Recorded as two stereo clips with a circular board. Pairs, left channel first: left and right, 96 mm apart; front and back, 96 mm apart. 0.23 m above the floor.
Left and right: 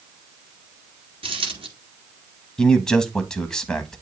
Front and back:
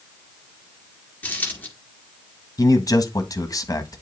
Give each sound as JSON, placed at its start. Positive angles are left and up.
{"t": 1.2, "sound": "a dropped coin", "azimuth_deg": -70, "distance_m": 1.9}
{"t": 2.6, "sound": "a man speaking", "azimuth_deg": 10, "distance_m": 1.2}